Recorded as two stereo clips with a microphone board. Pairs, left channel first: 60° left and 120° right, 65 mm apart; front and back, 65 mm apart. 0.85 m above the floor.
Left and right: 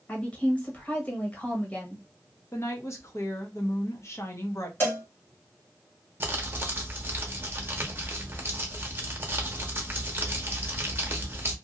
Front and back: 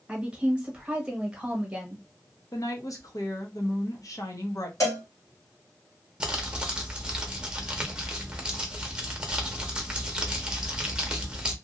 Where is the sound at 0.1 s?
115° left, 1.2 m.